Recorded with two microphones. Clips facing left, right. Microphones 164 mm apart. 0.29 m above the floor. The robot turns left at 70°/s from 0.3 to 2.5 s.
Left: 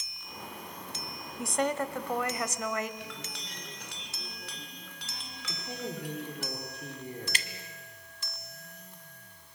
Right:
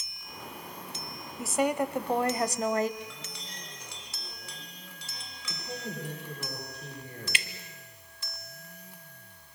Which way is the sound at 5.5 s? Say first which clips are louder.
Left 1 dB; 25° left (ahead or behind).